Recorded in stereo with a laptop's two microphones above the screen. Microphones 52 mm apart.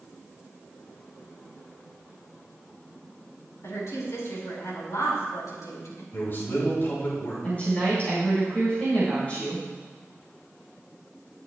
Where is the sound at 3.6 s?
70° left (ahead or behind), 4 m; by 6.0 s 75° left (ahead or behind), 4.5 m.